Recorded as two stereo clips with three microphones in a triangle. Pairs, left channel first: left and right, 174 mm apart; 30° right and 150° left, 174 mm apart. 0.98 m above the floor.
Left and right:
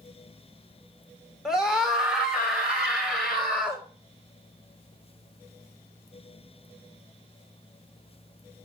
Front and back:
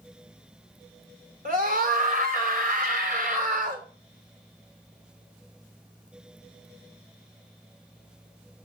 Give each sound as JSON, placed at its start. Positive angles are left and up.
{"t": 1.4, "sound": "a scream", "azimuth_deg": -175, "distance_m": 3.5}